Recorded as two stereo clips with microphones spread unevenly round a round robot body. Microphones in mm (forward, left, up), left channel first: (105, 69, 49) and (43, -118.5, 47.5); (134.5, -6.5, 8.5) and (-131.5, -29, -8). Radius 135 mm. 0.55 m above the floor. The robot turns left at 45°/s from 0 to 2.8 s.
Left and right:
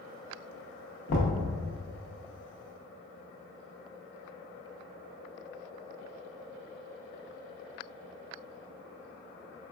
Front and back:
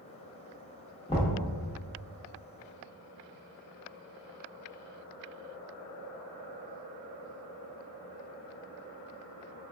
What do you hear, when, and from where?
1.1 s knocking: 80° left, 0.6 m; by 1.3 s 70° left, 0.6 m